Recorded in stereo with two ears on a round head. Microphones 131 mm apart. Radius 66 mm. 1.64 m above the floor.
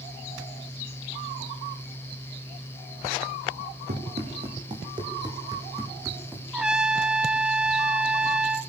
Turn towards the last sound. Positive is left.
turn(degrees=-5)  # may be behind; listen again after turning